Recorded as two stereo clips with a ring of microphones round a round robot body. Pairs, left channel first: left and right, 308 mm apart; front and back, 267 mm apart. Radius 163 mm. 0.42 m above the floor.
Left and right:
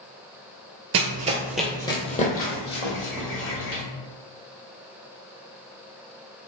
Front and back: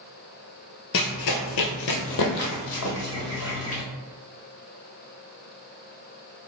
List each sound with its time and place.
0.9 s running footsteps: 50° right, 0.6 m; by 3.8 s 40° left, 2 m